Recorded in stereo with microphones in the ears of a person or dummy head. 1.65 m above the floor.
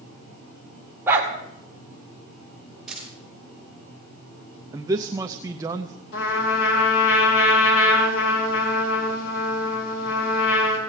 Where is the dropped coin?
10° right (ahead or behind), 9.5 m.